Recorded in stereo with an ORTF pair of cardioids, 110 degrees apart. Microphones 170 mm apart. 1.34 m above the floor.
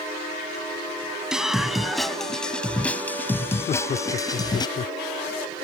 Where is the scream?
5° right; by 4.7 s 25° left.